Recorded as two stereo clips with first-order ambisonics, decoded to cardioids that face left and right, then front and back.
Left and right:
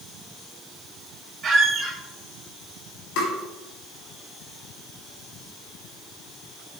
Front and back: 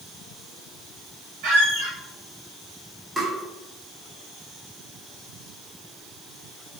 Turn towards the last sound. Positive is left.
turn(degrees=95)